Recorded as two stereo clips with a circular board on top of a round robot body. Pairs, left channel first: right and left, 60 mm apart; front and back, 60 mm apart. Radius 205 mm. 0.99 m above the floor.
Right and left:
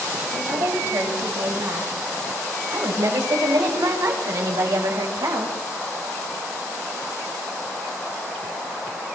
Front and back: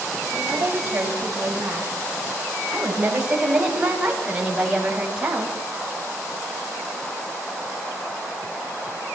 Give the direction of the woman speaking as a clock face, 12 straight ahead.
8 o'clock.